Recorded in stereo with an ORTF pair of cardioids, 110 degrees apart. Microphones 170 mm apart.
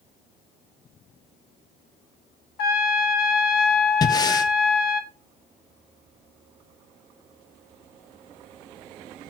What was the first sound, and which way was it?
A trumpet, 70° left.